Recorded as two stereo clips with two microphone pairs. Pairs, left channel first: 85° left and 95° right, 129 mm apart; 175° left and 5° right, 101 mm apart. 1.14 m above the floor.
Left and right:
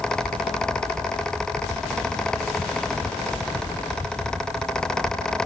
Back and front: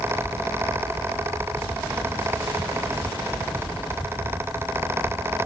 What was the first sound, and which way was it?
Only background noise.